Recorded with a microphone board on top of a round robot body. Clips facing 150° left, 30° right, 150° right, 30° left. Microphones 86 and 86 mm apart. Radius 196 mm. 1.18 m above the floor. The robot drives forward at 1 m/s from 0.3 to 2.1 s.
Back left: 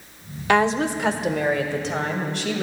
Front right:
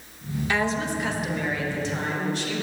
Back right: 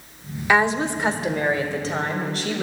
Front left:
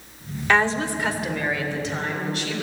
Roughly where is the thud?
No thud in this recording.